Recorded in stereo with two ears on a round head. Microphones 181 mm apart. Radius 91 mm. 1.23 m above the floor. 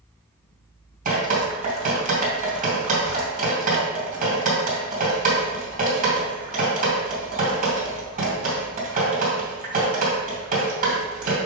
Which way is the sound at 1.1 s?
40° right (ahead or behind).